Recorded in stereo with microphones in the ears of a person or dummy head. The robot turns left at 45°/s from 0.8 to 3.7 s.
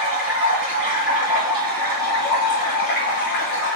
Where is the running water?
145° right, 2 m; by 3.8 s 85° left, 2 m.